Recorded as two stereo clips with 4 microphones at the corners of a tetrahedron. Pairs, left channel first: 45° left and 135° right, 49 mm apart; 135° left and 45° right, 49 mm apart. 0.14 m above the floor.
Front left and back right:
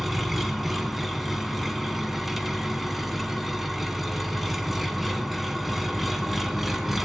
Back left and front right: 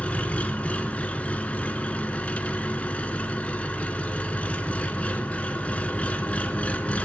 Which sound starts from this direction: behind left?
An engine running, at 0.0 s.